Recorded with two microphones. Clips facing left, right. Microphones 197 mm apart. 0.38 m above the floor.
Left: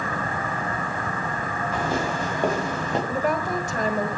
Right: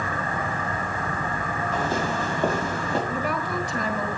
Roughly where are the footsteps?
Centre.